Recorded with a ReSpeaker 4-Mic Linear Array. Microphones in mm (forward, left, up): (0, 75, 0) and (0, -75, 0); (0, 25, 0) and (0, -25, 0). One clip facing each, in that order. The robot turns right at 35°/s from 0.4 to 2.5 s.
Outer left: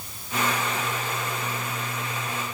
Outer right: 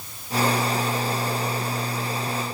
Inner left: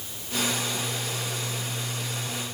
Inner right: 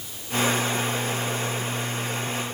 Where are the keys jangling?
I don't hear keys jangling.